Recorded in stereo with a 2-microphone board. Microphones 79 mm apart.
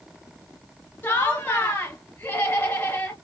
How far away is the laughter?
About 1.6 m.